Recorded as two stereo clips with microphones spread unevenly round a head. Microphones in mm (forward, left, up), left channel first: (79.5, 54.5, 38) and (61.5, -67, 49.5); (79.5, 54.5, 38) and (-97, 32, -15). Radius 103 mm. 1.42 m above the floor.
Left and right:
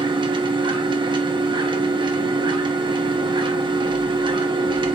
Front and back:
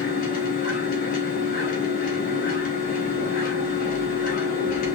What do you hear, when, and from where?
0.0 s a machine running: 45° right, 0.7 m